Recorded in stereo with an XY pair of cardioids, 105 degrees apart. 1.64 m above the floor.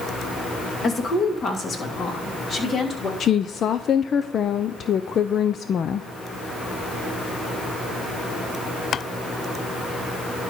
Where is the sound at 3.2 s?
50° left, 0.5 m.